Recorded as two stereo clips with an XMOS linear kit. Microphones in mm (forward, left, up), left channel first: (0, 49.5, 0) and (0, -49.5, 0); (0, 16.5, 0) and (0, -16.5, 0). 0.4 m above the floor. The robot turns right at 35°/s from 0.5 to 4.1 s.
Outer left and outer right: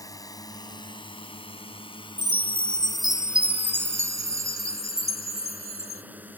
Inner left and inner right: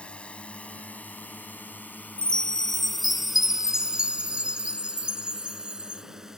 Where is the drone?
40° left (ahead or behind); by 6.4 s 20° right (ahead or behind).